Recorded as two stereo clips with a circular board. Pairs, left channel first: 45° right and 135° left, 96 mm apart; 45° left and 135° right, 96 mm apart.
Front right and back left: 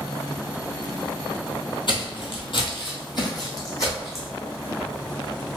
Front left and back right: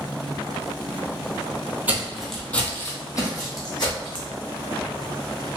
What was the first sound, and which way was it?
Footsteps, 65° right.